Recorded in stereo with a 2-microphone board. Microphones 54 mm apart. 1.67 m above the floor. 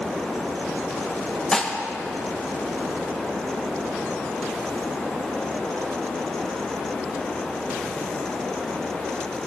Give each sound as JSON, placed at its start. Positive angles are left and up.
{"t": 1.5, "sound": "dishes clattering", "side_deg": 15, "distance_m": 1.0}